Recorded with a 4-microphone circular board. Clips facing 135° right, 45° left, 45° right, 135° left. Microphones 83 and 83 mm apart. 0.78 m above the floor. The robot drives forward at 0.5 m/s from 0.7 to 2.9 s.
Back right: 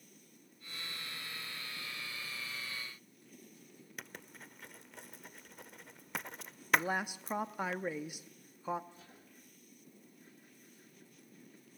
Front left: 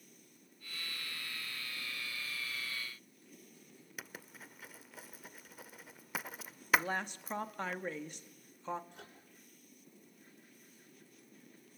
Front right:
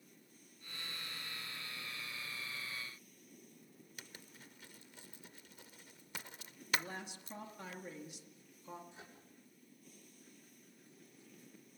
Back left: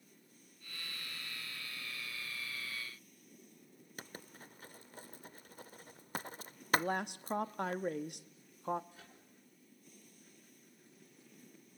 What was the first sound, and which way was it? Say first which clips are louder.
Writing: even, back left 7 dB; 130° left.